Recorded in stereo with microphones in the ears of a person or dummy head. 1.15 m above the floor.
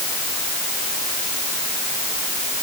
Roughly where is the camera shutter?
No camera shutter in this recording.